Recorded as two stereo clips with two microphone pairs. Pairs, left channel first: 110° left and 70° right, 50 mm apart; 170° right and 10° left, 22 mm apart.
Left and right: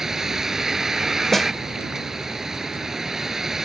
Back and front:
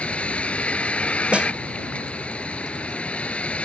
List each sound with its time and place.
0.0 s a vehicle: 150° right
1.3 s a snare drum: 25° left